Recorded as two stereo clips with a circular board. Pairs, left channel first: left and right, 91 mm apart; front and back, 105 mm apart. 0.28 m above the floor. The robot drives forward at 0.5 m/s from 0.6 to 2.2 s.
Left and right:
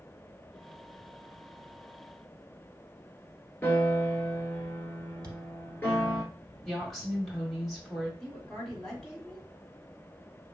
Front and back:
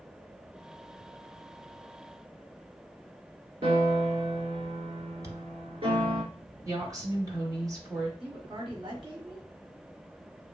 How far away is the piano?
About 0.9 m.